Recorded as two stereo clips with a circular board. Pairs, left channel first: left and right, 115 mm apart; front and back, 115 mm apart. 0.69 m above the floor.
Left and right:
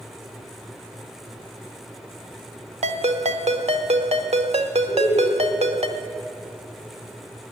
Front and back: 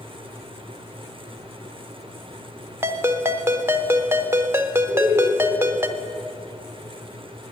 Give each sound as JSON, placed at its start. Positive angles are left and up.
{"t": 2.8, "sound": "a ringtone", "azimuth_deg": -115, "distance_m": 0.8}
{"t": 4.9, "sound": "laughter", "azimuth_deg": 125, "distance_m": 4.5}